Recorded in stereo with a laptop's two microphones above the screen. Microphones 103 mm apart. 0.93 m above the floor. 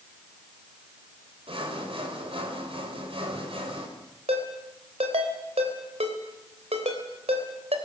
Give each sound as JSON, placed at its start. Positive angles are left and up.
{"t": 1.5, "sound": "sawing", "side_deg": -65, "distance_m": 4.0}
{"t": 4.3, "sound": "a ringtone", "side_deg": -85, "distance_m": 3.5}